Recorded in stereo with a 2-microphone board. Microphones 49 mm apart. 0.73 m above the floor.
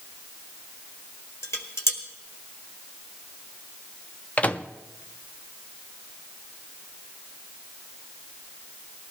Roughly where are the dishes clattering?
Left.